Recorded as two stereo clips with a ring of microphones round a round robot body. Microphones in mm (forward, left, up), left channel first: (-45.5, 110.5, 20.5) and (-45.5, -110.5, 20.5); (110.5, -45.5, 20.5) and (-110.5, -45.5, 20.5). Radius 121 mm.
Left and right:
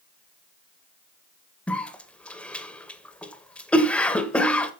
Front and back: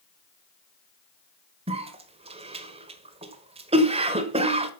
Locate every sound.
1.7 s a cough: 170° left, 1.4 m